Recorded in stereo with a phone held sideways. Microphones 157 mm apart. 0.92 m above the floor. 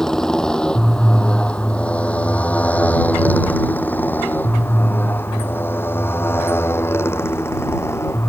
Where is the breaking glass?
I don't hear breaking glass.